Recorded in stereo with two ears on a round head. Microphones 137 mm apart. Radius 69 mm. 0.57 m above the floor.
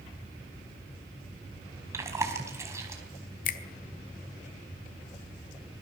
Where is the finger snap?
60° left (ahead or behind), 1.5 m.